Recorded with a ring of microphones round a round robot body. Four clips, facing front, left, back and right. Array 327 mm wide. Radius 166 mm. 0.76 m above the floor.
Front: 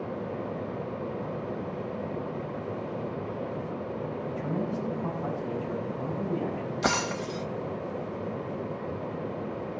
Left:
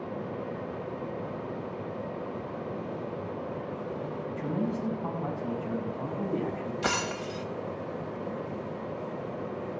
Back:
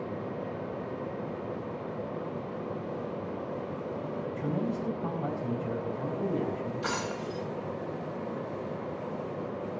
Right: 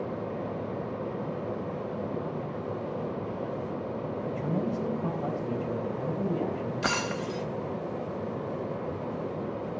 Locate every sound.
4.3 s a man speaking: 120° right, 4.5 m
6.8 s breaking glass: 15° right, 1.0 m